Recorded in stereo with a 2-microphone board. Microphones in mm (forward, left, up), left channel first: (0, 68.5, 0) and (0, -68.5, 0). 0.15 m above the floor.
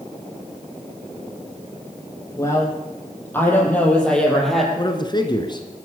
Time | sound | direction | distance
2.4 | a woman speaking | 20° left (ahead or behind) | 6.5 m
4.8 | a man speaking | 35° left (ahead or behind) | 1.9 m